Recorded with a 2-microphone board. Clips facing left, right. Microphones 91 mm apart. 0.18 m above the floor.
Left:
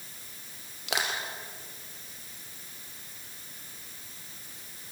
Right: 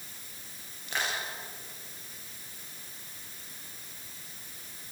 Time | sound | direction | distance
0.9 | crushing | 75° left (ahead or behind) | 4.5 m